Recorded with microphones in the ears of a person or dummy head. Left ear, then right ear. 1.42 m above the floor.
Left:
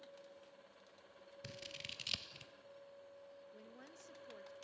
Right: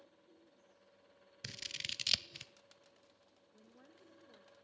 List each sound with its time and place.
1.4 s scissors: 50° right (ahead or behind), 0.6 m
3.5 s a woman speaking: 80° left, 1.8 m